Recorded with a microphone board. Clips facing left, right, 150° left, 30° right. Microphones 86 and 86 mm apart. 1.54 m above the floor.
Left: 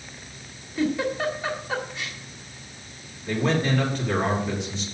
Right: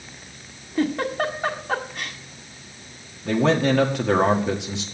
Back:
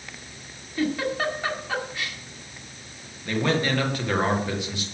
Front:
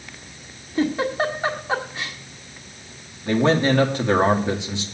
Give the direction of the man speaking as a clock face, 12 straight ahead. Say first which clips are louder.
Right 5 dB, front 6 dB; 3 o'clock.